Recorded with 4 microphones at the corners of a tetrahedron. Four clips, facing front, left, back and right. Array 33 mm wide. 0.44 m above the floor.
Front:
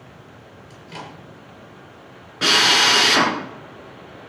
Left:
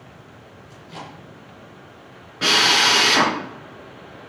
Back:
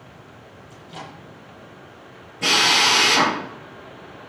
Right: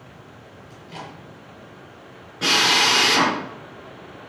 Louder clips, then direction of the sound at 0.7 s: Even, front 2 dB; 5° right.